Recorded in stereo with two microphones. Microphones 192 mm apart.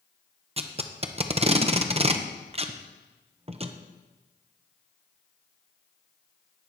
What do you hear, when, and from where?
0.6 s tape being pulled: 30° right (ahead or behind), 0.7 m